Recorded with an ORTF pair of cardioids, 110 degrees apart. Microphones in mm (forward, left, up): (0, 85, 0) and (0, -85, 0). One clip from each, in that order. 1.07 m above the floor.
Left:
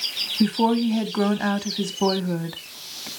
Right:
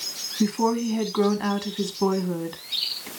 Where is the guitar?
I don't hear a guitar.